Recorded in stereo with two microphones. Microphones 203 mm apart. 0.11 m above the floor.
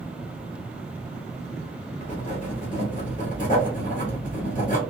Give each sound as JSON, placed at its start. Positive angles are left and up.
{"t": 2.0, "sound": "writing", "side_deg": 40, "distance_m": 1.5}